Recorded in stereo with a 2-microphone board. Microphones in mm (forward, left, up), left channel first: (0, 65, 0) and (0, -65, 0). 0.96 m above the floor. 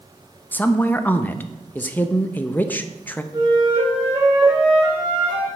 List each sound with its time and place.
0.5 s a woman speaking: 15° left (ahead or behind), 0.6 m
3.3 s a flute: 40° right (ahead or behind), 3.5 m